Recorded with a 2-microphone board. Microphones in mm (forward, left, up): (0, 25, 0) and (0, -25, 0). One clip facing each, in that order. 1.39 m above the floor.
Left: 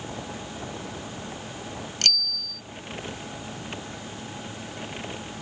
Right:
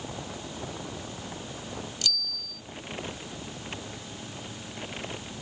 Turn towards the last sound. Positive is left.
turn(degrees=55)  # may be behind; listen again after turning